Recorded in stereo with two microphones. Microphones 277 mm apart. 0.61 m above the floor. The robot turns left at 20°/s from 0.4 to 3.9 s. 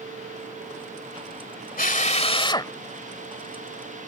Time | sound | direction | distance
1.8 | a drill | 30° left (ahead or behind) | ?